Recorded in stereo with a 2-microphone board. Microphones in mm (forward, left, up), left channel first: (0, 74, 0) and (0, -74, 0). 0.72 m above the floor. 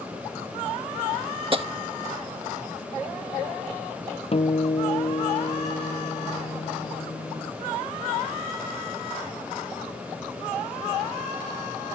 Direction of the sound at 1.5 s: 40° right (ahead or behind).